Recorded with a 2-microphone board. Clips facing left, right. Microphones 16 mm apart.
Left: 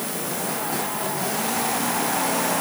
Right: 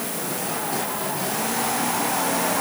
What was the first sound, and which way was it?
Only background noise.